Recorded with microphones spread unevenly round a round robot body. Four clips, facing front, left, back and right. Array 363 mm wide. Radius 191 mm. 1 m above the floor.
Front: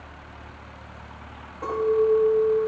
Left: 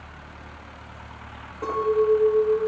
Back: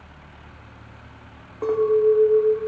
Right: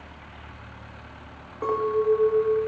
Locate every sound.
1.6 s a clink: 160° right, 1.0 m